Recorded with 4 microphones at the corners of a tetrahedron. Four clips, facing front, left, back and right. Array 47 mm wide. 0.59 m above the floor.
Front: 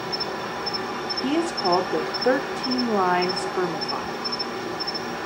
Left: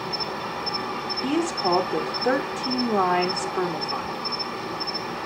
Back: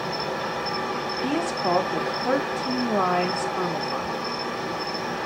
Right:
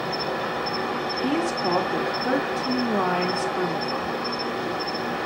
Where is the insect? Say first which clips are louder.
Right 3 dB, back 1 dB; 80° right, 1.9 m.